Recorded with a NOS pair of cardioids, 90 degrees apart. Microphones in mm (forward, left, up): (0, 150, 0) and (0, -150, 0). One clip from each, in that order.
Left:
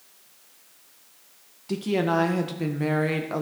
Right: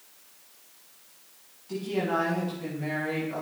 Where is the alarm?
No alarm in this recording.